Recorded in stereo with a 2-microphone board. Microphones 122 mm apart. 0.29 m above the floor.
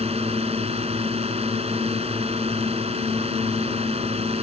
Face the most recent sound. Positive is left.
turn(degrees=-65)  # may be behind; listen again after turning